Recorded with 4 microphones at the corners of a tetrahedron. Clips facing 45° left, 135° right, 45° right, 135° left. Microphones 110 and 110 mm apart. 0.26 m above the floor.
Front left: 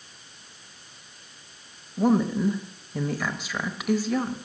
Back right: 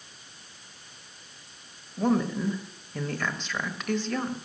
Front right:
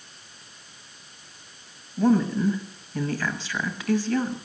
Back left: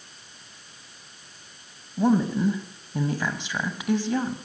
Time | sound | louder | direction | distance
2.0 | a woman speaking | front left 4 dB, front right 1 dB | 115° left | 1.0 m